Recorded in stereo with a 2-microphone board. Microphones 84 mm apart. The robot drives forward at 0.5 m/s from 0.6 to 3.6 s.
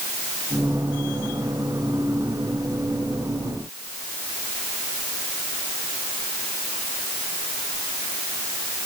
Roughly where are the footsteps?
I don't hear footsteps.